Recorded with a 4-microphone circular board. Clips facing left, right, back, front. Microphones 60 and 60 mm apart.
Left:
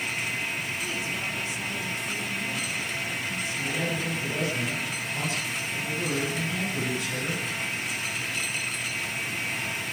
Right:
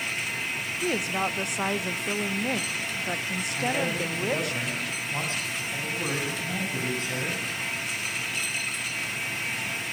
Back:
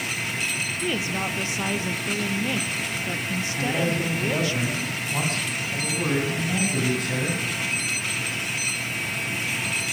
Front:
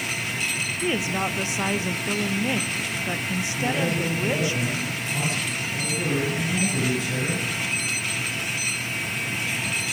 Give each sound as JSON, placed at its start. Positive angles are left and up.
{"t": 0.8, "sound": "a woman speaking", "azimuth_deg": -70, "distance_m": 1.2}
{"t": 3.5, "sound": "a man speaking", "azimuth_deg": -140, "distance_m": 8.5}